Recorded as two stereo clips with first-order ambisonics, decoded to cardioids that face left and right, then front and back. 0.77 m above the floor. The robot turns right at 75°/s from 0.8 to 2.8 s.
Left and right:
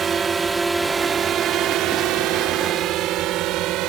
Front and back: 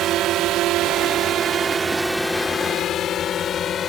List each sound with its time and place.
0.0 s a drone: 150° right; by 3.9 s 60° right